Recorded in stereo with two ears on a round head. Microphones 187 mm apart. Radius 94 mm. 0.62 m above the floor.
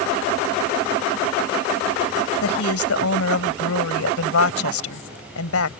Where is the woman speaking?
75° left (ahead or behind).